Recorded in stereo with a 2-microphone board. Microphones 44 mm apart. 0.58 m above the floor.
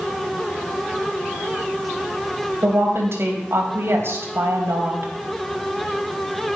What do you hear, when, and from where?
2.6 s a woman speaking: 65° right (ahead or behind), 3.5 m